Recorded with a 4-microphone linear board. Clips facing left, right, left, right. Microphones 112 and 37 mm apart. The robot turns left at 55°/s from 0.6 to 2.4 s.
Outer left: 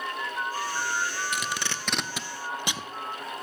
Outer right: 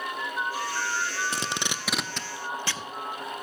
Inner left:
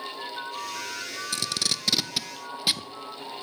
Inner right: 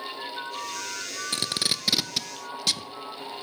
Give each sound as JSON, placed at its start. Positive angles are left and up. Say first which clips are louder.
{"t": 1.3, "sound": "tape being pulled", "louder": "even, inner right 1 dB", "side_deg": -35, "distance_m": 0.5}